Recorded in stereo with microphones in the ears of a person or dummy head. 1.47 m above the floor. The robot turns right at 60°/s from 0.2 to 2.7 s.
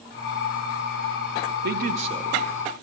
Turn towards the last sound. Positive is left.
turn(degrees=5)